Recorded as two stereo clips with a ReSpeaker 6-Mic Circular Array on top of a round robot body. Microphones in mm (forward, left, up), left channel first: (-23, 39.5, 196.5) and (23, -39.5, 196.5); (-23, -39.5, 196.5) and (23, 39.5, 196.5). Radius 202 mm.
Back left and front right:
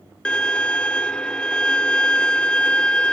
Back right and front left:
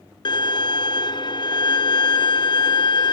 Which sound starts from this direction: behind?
A violin, at 0.2 s.